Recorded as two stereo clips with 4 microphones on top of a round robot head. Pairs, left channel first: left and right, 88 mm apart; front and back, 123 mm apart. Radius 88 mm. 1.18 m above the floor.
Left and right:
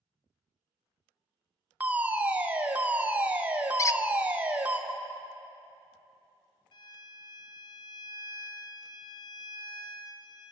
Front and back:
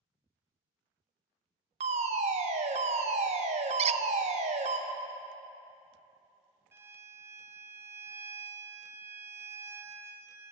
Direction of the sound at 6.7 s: 110° left.